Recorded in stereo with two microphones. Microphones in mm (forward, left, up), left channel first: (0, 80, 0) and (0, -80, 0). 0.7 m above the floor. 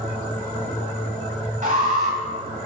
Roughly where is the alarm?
Right.